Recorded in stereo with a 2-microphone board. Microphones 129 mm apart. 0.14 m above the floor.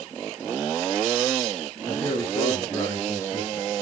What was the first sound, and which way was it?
A man speaking, 15° left (ahead or behind).